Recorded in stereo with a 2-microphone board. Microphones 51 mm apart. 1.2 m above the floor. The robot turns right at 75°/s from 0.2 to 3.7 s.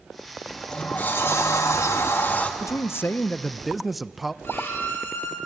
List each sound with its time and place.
0.5 s a sliding door: straight ahead, 1.9 m; by 2.5 s 150° left, 1.9 m
2.6 s a man speaking: 100° left, 0.5 m; by 4.3 s 175° right, 0.5 m
4.4 s a violin: 50° left (ahead or behind), 6 m